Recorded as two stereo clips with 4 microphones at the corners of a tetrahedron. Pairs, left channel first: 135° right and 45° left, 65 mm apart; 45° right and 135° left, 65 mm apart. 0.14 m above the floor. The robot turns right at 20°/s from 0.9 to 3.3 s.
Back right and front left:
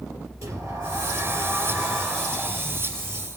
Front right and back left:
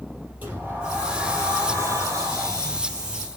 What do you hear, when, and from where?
0.4 s a sliding door: 70° left, 3.5 m; by 3.3 s 120° left, 3.5 m